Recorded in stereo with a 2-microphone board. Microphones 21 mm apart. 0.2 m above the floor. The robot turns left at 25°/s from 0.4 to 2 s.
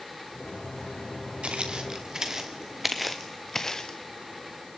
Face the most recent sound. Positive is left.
turn(degrees=25)  # may be behind; listen again after turning